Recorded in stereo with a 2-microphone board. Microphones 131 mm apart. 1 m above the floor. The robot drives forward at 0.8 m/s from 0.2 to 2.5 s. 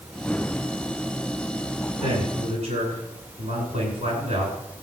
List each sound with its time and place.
2.0 s a man speaking: 50° right (ahead or behind), 10 m